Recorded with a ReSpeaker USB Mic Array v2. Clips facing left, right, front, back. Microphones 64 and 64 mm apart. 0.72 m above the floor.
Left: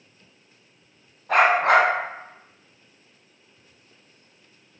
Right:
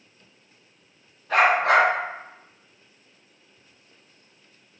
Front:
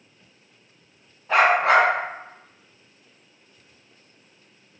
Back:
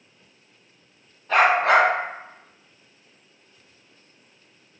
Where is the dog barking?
75° left, 1.4 m.